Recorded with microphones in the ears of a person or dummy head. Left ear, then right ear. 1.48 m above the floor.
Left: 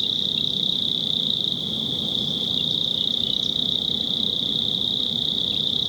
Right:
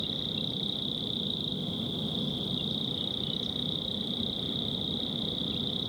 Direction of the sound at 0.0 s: 30° left (ahead or behind).